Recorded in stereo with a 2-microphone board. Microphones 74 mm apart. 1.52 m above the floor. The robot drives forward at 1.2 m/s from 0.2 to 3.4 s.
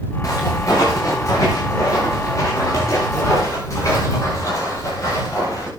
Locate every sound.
0.2 s footsteps: 45° left (ahead or behind), 9 m